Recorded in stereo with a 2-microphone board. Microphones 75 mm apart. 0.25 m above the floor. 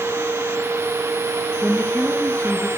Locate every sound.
1.6 s a woman speaking: 15° left (ahead or behind), 2.5 m